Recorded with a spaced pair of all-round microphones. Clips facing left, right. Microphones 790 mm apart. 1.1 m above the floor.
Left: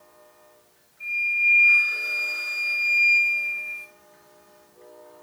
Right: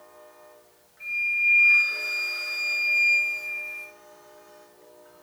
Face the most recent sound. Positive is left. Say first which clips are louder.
# left 2 dB
turn(degrees=-10)  # may be behind; listen again after turning